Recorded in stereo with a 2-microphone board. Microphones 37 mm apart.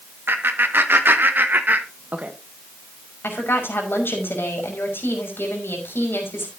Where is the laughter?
70° right (ahead or behind), 2.0 m; by 2.3 s 40° right (ahead or behind), 1.3 m.